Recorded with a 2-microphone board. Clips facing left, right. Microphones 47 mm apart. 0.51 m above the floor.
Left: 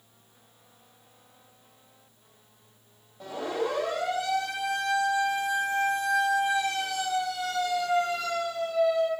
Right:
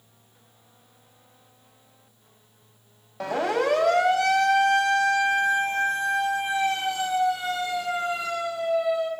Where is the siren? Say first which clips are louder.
Right 6 dB; 70° right (ahead or behind), 4.5 m; by 9.1 s 10° right (ahead or behind), 8.5 m.